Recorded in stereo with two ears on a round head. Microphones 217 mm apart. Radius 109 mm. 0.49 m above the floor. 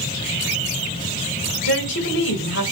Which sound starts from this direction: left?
A woman speaking, at 1.6 s.